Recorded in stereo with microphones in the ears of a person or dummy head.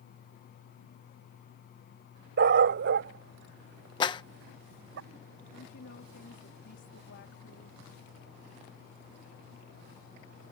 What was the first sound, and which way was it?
A dog barking, 60° right (ahead or behind).